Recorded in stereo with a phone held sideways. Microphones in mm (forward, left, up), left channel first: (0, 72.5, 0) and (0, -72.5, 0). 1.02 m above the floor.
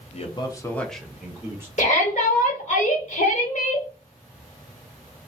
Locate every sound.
0.1 s a man speaking: 50° left (ahead or behind), 0.9 m; by 1.7 s 20° right (ahead or behind), 1.5 m
1.8 s a shout: 55° left (ahead or behind), 1.6 m